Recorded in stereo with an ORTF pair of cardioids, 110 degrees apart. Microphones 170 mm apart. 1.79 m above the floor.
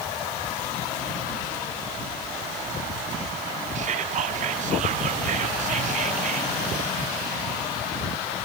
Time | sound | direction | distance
3.8 | whispering | 45° right | 1.2 m